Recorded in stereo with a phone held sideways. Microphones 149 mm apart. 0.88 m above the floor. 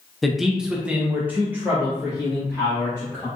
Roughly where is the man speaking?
Centre.